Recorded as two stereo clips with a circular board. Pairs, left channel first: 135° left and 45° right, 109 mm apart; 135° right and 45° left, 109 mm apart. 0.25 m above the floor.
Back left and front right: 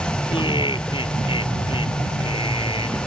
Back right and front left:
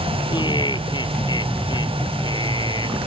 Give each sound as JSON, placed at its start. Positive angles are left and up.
{"t": 0.3, "sound": "laughter", "azimuth_deg": 175}